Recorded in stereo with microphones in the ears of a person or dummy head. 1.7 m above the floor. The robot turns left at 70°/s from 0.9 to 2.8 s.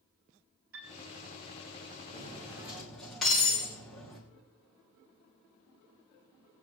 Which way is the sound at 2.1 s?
45° right (ahead or behind).